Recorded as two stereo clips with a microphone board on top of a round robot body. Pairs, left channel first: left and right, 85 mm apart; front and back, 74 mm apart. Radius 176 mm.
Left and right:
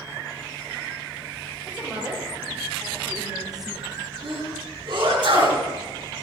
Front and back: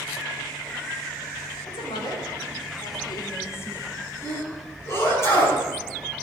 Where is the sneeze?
55° right, 5.5 m.